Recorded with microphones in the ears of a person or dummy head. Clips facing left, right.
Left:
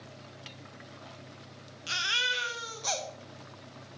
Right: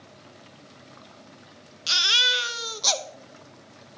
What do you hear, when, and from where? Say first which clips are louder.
1.9 s a baby crying: right 6 dB; 60° right (ahead or behind), 0.7 m